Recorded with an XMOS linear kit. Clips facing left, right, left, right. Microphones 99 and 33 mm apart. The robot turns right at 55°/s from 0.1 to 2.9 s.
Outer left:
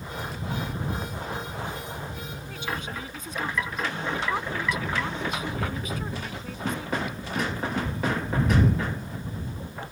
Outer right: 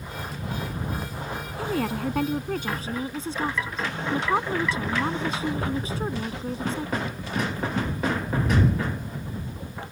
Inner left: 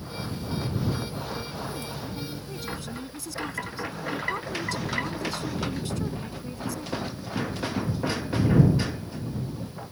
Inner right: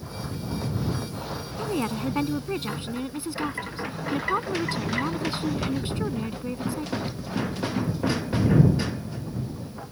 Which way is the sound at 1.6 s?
105° right.